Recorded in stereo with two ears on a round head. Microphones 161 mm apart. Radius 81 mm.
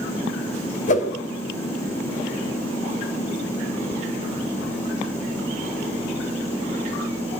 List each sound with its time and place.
0.9 s a whoosh: 45° left (ahead or behind), 3 m